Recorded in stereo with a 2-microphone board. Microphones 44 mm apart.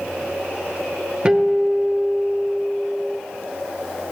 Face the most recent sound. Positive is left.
turn(degrees=-25)  # may be behind; listen again after turning